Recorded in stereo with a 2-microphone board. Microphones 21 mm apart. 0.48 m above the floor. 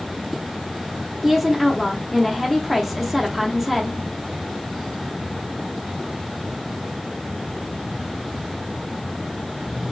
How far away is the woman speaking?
About 0.8 m.